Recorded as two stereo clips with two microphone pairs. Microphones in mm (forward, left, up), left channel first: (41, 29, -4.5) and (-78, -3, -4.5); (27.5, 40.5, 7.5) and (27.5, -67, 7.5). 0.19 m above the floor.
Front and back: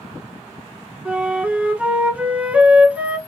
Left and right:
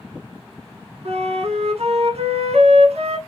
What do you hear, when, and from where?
1.1 s a flute: 90° right, 0.8 m